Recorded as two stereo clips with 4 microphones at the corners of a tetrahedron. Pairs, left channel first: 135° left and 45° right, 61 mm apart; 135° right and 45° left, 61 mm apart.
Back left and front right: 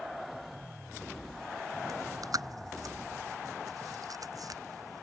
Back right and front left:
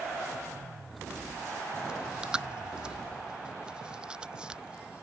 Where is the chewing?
30° right.